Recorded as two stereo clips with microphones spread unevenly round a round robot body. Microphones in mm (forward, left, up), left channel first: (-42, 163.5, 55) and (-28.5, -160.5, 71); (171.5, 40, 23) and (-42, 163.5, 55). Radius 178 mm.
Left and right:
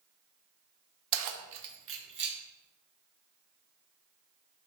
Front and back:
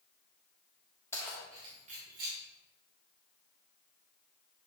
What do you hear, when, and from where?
1.1 s keys jangling: 110° right, 0.9 m; by 2.4 s 145° right, 1.8 m